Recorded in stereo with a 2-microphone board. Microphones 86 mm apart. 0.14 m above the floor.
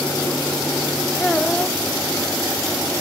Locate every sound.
1.2 s a child speaking: 10° left (ahead or behind)